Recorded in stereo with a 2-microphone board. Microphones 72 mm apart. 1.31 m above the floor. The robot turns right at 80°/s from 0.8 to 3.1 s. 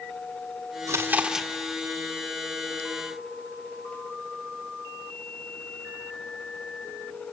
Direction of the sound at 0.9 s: 45° right.